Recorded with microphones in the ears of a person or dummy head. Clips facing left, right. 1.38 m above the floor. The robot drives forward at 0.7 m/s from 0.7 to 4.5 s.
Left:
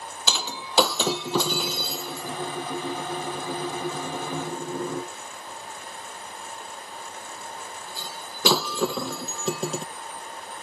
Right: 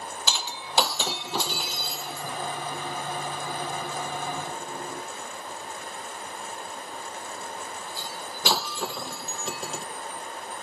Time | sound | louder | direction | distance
0.3 | breaking glass | left 5 dB | 75° left (ahead or behind) | ?